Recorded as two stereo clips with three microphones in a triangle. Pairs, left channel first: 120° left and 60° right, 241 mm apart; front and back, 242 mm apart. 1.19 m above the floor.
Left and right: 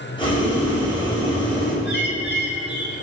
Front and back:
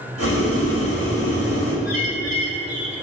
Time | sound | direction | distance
0.2 | boiling | 170° right | 4.5 m
1.9 | a bird | 160° left | 2.5 m